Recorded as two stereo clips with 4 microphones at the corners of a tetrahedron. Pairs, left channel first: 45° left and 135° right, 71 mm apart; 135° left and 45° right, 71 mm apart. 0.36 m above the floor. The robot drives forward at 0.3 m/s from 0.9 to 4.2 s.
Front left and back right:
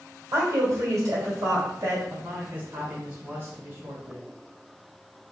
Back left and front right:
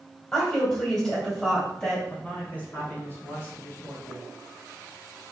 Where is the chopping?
I don't hear chopping.